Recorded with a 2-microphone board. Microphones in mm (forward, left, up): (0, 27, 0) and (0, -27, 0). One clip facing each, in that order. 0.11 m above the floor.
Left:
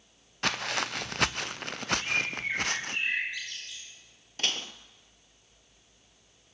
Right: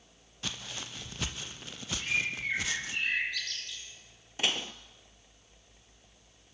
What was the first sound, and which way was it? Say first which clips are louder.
Footsteps: left 11 dB; 75° left (ahead or behind).